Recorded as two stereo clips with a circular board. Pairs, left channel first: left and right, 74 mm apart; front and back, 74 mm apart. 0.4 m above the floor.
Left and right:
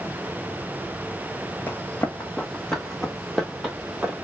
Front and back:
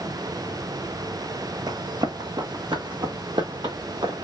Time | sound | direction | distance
1.7 | running footsteps | 150° left | 1.3 m